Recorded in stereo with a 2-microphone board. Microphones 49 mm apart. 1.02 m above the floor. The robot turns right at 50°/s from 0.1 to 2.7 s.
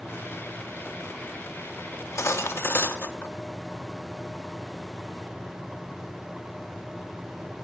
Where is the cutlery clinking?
90° left, 0.8 m; by 3.3 s 130° left, 0.8 m.